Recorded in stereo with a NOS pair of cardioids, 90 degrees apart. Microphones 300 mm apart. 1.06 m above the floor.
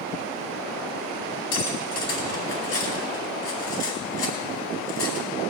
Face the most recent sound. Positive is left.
turn(degrees=55)